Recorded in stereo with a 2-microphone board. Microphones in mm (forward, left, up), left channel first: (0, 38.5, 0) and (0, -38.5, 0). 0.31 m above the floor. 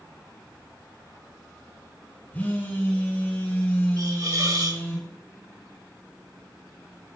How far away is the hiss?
About 2 m.